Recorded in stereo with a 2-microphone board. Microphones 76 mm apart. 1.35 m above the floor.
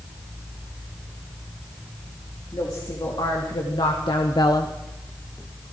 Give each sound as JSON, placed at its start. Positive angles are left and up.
{"t": 2.5, "sound": "a woman speaking", "side_deg": 65, "distance_m": 3.5}